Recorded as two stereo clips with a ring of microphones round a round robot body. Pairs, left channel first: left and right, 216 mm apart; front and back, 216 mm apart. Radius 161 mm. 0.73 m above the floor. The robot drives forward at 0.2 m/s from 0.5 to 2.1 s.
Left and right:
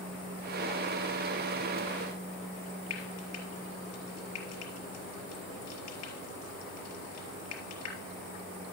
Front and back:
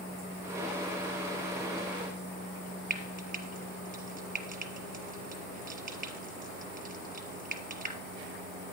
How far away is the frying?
About 3 m.